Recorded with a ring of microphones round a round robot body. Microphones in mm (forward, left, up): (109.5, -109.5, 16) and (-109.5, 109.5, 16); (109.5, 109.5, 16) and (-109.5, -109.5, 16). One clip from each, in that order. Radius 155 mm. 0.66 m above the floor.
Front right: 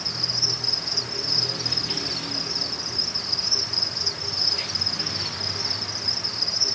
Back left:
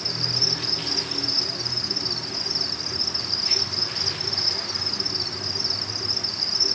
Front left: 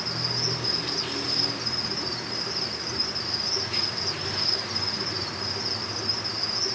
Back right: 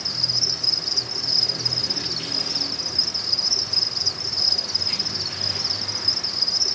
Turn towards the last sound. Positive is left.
turn(degrees=-125)